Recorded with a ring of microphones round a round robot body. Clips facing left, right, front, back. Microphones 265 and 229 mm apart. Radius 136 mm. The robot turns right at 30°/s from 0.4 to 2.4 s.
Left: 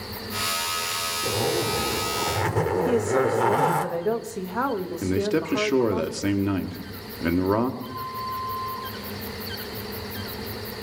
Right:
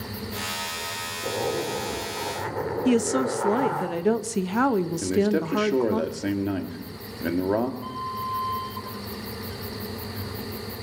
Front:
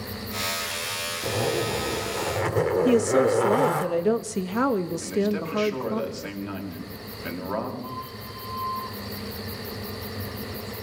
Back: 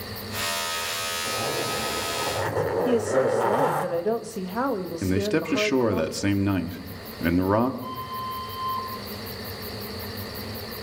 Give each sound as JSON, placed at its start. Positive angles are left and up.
{"t": 1.2, "sound": "a zipper", "azimuth_deg": 20, "distance_m": 3.0}
{"t": 2.9, "sound": "a woman speaking", "azimuth_deg": -60, "distance_m": 1.2}
{"t": 5.0, "sound": "a man speaking", "azimuth_deg": 165, "distance_m": 2.5}
{"t": 7.8, "sound": "a flute", "azimuth_deg": -145, "distance_m": 5.0}